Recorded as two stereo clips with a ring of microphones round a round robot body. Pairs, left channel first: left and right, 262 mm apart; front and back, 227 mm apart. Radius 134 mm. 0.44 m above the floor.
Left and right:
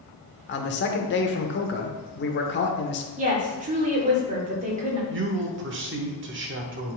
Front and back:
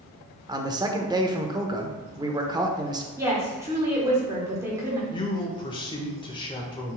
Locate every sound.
0.5 s a man speaking: 115° left, 1.0 m
3.2 s a woman speaking: 115° right, 1.4 m
5.1 s a man speaking: 65° right, 1.2 m